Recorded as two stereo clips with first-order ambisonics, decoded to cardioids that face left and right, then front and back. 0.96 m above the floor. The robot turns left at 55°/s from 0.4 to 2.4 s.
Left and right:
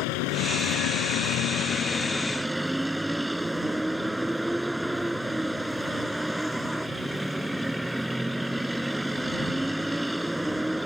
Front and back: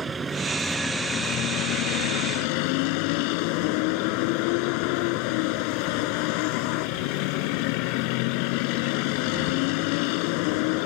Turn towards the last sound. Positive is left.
turn(degrees=-5)